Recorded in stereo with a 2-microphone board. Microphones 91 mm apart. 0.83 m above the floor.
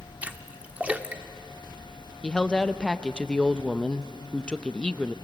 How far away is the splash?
About 0.9 m.